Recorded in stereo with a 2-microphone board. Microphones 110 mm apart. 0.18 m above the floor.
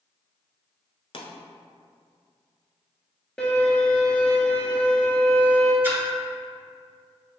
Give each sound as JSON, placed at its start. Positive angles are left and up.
{"t": 1.1, "sound": "a pop", "side_deg": 60, "distance_m": 0.8}
{"t": 3.4, "sound": "a violin", "side_deg": 10, "distance_m": 1.0}
{"t": 5.8, "sound": "a splash", "side_deg": -20, "distance_m": 0.9}